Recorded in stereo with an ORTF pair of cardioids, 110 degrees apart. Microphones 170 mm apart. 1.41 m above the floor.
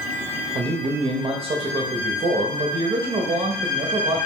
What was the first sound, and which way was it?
A man speaking, 30° right.